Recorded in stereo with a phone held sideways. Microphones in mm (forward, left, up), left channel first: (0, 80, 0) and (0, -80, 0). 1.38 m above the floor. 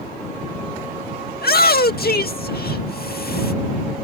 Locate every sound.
1.3 s a shout: 75° left (ahead or behind)